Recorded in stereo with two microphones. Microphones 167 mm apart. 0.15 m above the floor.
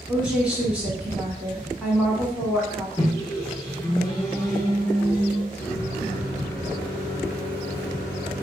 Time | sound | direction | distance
0.1 | a woman speaking | 5° right (ahead or behind) | 1.1 m
3.0 | a microwave | 25° left (ahead or behind) | 1.1 m
5.6 | a microwave | 15° left (ahead or behind) | 1.7 m